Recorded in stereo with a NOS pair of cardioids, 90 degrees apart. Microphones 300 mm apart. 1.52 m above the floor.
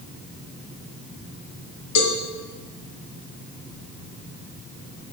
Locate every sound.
1.9 s a cowbell: 60° left, 1.7 m